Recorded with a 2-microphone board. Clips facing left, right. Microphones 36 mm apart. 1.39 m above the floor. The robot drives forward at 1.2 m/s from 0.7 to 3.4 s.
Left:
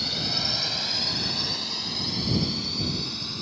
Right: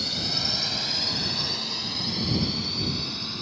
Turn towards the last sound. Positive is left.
turn(degrees=-5)  # may be behind; listen again after turning